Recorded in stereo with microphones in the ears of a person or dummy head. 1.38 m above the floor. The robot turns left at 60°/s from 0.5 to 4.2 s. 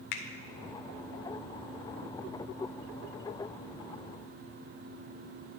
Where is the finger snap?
60° left (ahead or behind), 0.7 m.